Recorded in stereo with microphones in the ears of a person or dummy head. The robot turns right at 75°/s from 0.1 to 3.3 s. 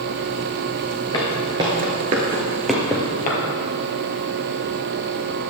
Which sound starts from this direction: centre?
Footsteps, at 1.1 s.